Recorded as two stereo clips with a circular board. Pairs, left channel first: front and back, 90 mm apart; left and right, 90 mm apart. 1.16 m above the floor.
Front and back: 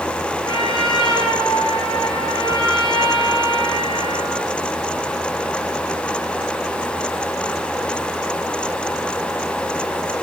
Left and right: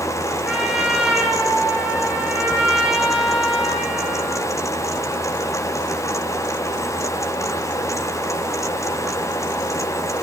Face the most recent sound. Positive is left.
turn(degrees=-15)